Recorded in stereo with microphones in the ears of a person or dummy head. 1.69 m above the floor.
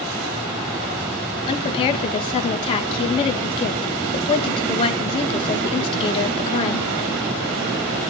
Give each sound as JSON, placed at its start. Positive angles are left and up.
{"t": 1.5, "sound": "a woman speaking", "side_deg": 30, "distance_m": 2.5}